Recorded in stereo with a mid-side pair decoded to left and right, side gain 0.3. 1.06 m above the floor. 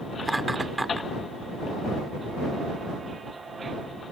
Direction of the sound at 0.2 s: 20° right.